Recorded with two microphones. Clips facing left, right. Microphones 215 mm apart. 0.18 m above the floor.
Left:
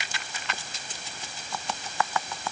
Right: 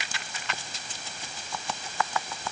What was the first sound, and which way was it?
Only background noise.